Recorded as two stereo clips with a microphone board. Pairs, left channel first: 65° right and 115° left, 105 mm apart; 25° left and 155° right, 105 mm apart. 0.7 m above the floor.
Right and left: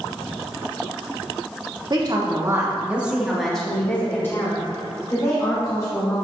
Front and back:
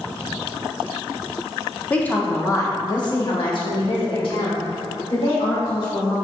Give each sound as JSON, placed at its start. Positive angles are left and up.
{"t": 1.9, "sound": "a woman speaking", "azimuth_deg": 95, "distance_m": 1.4}